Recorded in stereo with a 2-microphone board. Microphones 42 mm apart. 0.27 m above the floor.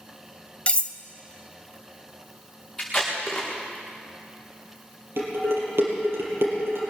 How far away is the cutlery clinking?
About 0.6 m.